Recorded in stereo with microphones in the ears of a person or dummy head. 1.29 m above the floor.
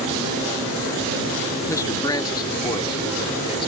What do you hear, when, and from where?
1.7 s a man speaking: 10° left (ahead or behind); by 3.7 s 20° left (ahead or behind)